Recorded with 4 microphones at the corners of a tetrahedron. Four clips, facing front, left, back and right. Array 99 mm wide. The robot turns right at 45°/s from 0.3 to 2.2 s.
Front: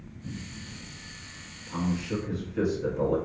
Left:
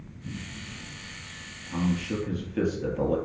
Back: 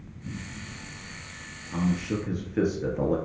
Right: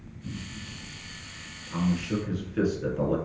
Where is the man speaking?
145° left, 1.2 m; by 3.2 s 165° left, 1.2 m.